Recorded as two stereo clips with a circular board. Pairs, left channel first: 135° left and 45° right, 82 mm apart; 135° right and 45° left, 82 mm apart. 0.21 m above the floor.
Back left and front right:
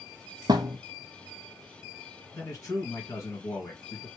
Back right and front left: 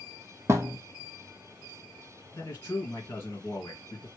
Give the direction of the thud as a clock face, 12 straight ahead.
12 o'clock.